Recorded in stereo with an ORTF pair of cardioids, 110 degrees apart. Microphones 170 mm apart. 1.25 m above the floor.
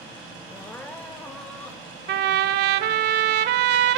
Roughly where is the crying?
Ahead.